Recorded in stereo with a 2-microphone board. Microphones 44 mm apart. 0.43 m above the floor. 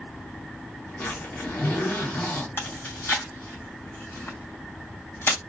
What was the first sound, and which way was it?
A zipper, 70° left (ahead or behind).